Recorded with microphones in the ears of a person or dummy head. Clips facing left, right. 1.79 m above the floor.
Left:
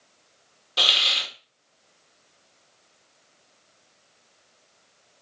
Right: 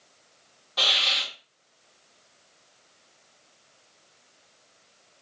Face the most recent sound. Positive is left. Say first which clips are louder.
# left 1 dB
turn(degrees=40)  # may be behind; listen again after turning